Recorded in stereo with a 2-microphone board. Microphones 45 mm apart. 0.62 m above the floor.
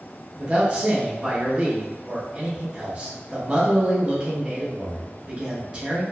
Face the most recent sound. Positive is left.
turn(degrees=-25)  # may be behind; listen again after turning